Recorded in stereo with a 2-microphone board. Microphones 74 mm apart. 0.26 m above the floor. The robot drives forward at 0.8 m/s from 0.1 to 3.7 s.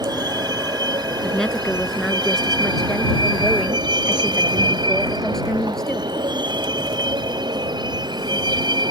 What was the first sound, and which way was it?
A vehicle, 65° right (ahead or behind).